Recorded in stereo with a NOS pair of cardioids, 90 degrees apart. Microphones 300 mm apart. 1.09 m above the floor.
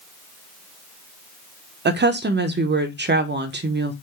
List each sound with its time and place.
1.9 s a woman speaking: 40° right, 0.7 m